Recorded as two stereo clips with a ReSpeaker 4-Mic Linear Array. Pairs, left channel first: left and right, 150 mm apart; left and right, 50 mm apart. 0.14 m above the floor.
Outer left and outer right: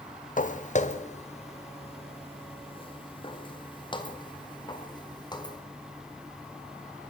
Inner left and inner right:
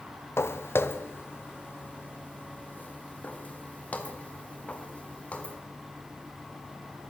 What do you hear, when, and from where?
0.4 s footsteps: 60° left (ahead or behind), 1.2 m; by 5.6 s 30° left (ahead or behind), 4 m